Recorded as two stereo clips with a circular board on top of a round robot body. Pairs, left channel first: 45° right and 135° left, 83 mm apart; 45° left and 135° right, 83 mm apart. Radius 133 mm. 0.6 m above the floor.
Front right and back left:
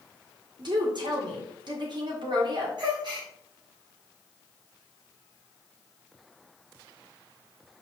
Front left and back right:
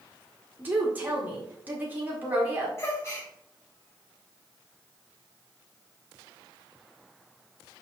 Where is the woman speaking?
160° left, 1.7 m.